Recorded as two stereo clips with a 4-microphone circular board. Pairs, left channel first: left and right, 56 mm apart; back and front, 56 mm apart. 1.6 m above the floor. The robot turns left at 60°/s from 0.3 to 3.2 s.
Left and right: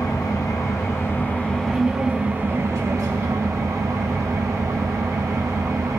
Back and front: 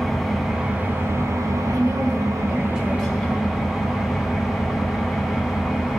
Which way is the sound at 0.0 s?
90° left.